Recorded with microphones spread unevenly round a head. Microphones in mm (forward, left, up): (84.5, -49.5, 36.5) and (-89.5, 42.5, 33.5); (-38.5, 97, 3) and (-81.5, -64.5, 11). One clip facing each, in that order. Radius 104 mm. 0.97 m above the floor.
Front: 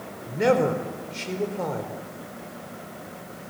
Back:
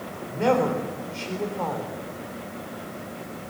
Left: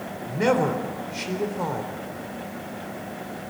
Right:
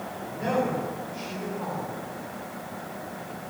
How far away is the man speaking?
About 4 m.